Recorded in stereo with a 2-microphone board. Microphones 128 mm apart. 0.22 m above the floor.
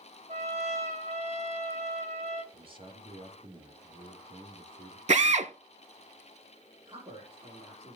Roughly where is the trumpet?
Right.